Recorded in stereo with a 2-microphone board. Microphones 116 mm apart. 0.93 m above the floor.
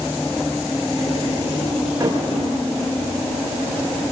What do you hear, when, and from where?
2.0 s a thud: 25° right (ahead or behind), 7.5 m